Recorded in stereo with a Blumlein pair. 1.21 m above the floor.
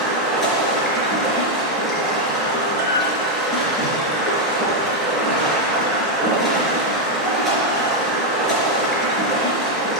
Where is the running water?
5° left, 3.5 m.